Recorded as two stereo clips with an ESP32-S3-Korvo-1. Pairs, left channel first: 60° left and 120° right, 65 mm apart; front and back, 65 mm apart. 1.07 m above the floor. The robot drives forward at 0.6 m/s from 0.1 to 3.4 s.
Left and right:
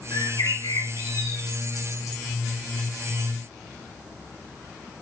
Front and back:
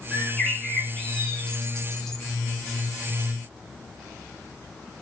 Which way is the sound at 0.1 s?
70° left.